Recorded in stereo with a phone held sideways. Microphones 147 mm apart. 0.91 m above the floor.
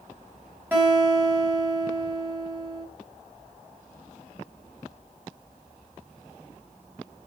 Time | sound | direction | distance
0.7 | a guitar | 15° right (ahead or behind) | 5 m